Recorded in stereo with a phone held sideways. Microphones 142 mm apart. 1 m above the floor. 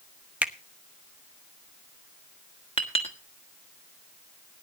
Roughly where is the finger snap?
Centre.